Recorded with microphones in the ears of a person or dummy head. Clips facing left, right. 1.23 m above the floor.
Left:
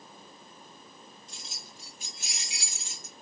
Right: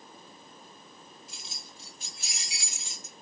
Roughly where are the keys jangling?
Centre.